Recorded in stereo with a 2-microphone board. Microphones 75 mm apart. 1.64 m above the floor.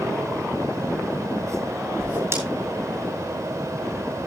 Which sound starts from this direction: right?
A whoosh, at 2.0 s.